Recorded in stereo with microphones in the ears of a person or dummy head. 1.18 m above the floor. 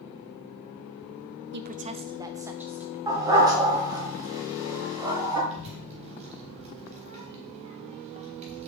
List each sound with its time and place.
1.5 s a woman speaking: 50° right (ahead or behind), 0.6 m; by 3.0 s 5° right (ahead or behind), 1.6 m
3.1 s a dog barking: 15° right (ahead or behind), 1.5 m
5.5 s a child speaking: 30° right (ahead or behind), 4 m